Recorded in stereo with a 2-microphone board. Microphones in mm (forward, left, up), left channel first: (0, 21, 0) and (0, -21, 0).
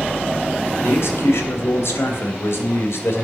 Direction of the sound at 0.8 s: 70° left (ahead or behind).